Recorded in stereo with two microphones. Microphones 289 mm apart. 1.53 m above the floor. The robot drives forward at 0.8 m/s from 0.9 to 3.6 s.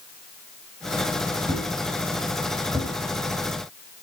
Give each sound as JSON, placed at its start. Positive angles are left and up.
{"t": 1.5, "sound": "a thud", "side_deg": -15, "distance_m": 4.5}